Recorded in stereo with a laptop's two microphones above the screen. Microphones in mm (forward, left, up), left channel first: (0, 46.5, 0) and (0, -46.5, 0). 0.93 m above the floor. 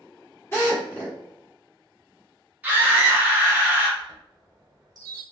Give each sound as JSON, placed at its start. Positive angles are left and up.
{"t": 0.5, "sound": "a drill", "side_deg": 25, "distance_m": 1.3}
{"t": 2.6, "sound": "a scream", "side_deg": -20, "distance_m": 1.2}
{"t": 4.0, "sound": "a chime", "side_deg": -40, "distance_m": 0.7}